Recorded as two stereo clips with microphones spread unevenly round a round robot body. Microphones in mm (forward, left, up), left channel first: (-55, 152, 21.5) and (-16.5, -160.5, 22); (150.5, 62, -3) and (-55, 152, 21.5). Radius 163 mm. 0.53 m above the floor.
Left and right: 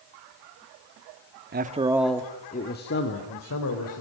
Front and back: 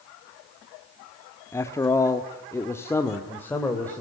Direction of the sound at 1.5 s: 80° right.